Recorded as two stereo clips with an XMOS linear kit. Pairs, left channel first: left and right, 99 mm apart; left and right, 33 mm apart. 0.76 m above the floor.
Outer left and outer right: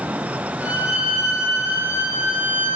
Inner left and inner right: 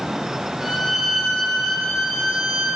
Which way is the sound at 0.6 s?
15° right (ahead or behind).